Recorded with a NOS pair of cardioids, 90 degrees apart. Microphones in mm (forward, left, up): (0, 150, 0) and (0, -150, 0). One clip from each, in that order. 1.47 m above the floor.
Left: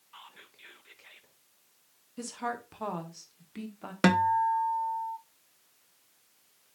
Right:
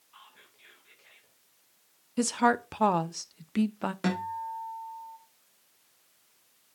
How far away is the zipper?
I don't hear a zipper.